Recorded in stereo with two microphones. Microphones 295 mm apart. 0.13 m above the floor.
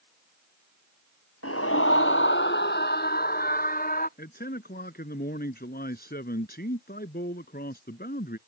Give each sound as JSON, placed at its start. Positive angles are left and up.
{"t": 1.4, "sound": "a scream", "side_deg": 50}
{"t": 4.2, "sound": "a man speaking", "side_deg": 30}